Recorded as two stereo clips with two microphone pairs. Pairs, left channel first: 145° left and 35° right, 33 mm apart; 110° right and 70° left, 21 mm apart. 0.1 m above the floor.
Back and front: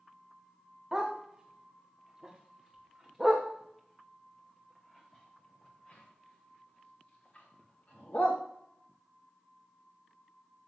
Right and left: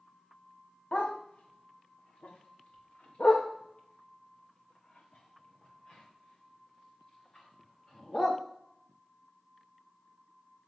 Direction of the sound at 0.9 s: 100° right.